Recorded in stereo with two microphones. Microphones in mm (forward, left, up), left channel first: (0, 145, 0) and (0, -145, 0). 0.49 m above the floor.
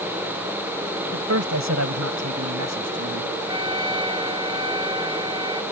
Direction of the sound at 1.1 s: 60° right (ahead or behind).